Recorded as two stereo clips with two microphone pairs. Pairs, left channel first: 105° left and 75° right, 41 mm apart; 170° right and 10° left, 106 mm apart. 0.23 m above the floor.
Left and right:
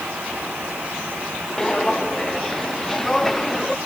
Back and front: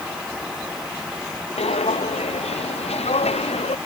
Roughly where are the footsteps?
Behind.